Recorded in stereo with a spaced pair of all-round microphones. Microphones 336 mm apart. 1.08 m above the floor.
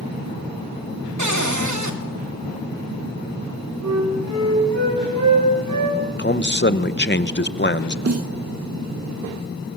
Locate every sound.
1.2 s a cupboard door: 55° right (ahead or behind), 2.5 m
3.8 s a flute: 60° right (ahead or behind), 9 m
6.2 s a man speaking: 35° left (ahead or behind), 0.9 m
8.1 s a snare drum: 45° right (ahead or behind), 0.5 m